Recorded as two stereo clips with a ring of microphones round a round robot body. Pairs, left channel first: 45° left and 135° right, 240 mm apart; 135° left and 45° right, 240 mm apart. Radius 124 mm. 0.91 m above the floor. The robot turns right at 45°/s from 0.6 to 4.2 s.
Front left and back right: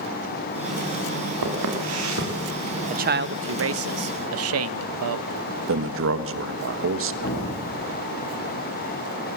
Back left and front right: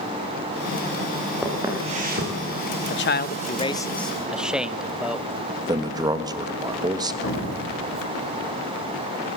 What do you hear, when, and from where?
1.4 s footsteps: 130° right, 6.5 m; by 2.3 s 90° right, 6.5 m
2.9 s a man speaking: 170° left, 0.7 m; by 5.3 s 130° right, 0.7 m
5.7 s a man speaking: 115° right, 1.4 m
7.2 s an explosion: 95° left, 8 m